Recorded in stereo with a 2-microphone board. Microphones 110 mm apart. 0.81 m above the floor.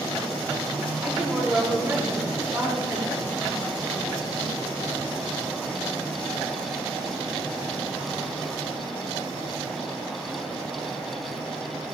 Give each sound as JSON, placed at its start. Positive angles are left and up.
{"t": 1.0, "sound": "a woman speaking", "side_deg": -10, "distance_m": 7.5}